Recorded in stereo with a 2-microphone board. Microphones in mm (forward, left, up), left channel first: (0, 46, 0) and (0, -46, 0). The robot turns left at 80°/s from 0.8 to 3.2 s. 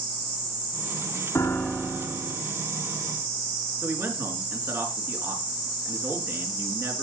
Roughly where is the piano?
Ahead left.